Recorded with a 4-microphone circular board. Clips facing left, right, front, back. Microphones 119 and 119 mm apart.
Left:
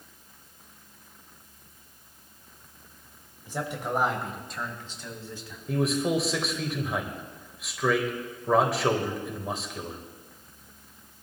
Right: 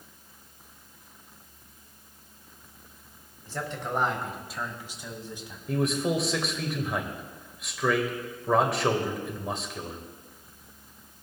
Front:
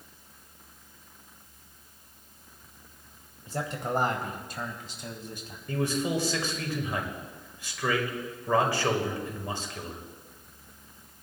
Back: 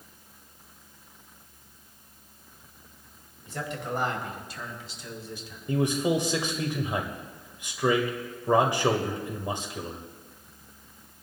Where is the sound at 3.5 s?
30° left, 1.4 m; by 5.6 s 25° right, 2.0 m.